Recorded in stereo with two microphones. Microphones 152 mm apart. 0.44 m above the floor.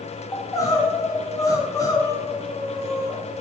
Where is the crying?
20° left (ahead or behind), 1.2 m.